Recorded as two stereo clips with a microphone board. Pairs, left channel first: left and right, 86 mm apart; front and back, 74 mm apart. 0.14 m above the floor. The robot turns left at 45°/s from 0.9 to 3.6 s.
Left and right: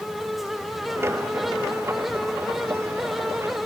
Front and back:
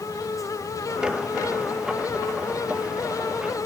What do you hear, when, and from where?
Only background noise.